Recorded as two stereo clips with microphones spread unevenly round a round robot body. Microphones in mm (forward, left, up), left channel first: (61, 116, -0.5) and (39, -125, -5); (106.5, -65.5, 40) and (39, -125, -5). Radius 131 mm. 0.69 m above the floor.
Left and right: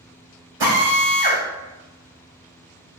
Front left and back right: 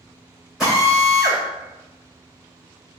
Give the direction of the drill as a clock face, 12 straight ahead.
2 o'clock.